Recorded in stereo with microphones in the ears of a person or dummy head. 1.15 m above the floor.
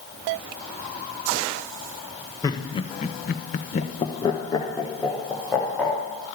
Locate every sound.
2.4 s laughter: 25° left (ahead or behind), 1.2 m; by 6.0 s 5° left (ahead or behind), 3 m